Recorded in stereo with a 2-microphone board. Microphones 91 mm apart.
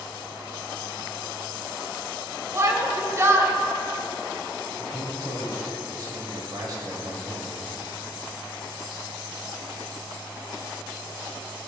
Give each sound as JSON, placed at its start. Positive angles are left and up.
{"t": 2.5, "sound": "a shout", "side_deg": -35, "distance_m": 1.2}
{"t": 4.8, "sound": "a man speaking", "side_deg": -50, "distance_m": 2.5}